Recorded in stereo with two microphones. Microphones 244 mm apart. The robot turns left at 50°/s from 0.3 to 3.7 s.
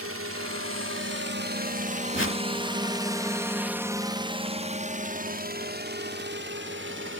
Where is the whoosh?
50° left (ahead or behind); by 2.4 s 65° left (ahead or behind).